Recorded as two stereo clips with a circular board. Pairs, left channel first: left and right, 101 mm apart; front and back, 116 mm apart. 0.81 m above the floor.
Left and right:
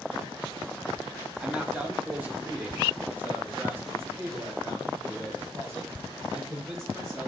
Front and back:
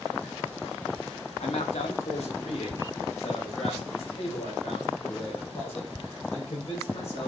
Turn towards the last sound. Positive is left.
turn(degrees=-30)